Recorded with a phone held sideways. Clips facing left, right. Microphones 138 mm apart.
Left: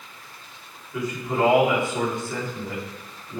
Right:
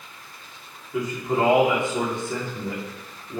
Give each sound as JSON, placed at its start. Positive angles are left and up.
{"t": 0.9, "sound": "a man speaking", "side_deg": -20, "distance_m": 3.0}